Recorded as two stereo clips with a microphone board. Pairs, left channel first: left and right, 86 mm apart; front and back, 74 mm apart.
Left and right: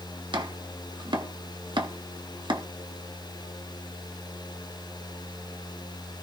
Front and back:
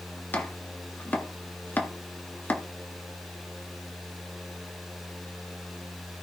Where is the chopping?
65° right, 1.6 m.